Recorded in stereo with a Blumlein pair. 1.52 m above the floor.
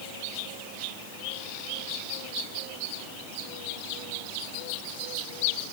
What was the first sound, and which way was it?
Only background noise.